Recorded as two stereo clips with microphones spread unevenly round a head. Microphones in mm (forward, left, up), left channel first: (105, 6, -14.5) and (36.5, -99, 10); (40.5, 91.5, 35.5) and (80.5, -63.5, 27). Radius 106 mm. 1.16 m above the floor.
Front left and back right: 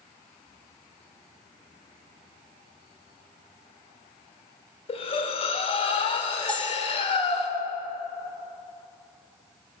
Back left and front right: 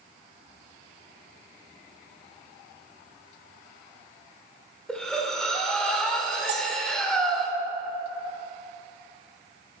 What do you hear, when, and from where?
4.9 s breathing: 25° left, 1.1 m
6.5 s a bell: 30° right, 1.4 m